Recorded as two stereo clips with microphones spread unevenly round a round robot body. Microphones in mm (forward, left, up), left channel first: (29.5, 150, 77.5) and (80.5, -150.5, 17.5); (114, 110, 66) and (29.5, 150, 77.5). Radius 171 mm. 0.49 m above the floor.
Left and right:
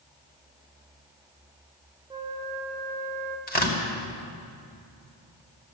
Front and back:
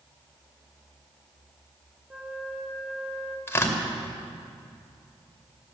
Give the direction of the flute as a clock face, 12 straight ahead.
4 o'clock.